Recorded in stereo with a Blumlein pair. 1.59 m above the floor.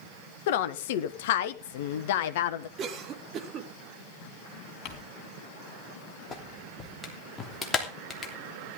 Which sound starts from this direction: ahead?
A clap, at 6.3 s.